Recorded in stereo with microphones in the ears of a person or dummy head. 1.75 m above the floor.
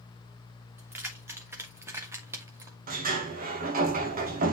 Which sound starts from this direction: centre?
Keys jangling, at 0.8 s.